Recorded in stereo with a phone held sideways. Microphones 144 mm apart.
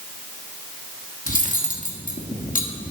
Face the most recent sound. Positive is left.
turn(degrees=65)  # may be behind; listen again after turning